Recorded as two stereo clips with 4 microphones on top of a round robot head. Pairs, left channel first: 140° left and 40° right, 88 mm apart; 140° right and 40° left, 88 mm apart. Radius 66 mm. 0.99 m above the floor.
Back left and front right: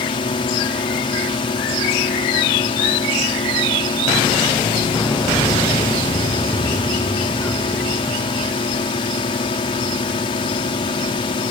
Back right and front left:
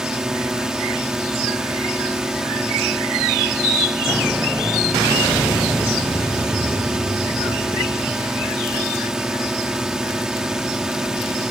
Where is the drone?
125° left.